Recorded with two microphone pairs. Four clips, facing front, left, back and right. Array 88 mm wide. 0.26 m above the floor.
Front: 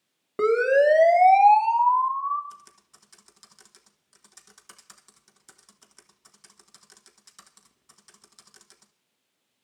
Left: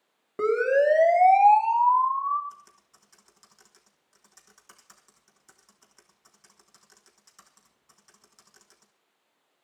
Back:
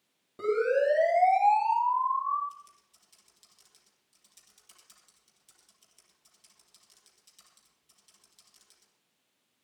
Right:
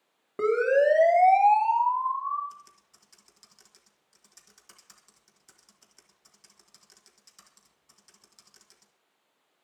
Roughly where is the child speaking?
No child speaking in this recording.